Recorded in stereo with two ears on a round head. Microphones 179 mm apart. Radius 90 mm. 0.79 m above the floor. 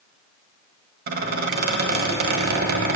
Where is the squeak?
50° right (ahead or behind), 1.7 m.